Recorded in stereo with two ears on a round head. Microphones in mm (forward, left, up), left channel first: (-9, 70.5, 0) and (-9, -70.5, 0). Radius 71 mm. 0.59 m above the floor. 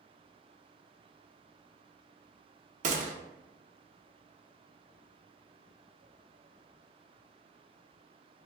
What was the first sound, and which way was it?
A gunshot, 50° right (ahead or behind).